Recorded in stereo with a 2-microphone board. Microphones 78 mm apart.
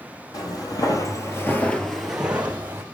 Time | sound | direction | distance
0.3 | footsteps | 60° left (ahead or behind) | 2 m